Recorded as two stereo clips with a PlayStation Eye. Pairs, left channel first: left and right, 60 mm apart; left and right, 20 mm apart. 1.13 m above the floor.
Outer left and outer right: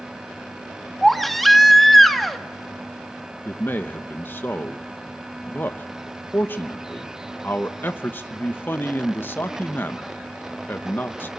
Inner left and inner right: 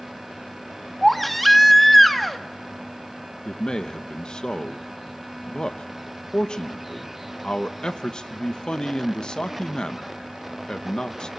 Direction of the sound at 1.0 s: Centre (ahead or behind).